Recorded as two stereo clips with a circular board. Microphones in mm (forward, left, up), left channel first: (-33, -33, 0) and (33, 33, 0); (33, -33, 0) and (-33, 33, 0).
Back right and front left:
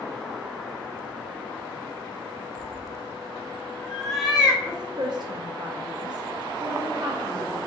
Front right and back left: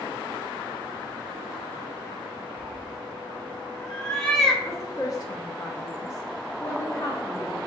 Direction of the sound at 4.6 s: 5° left.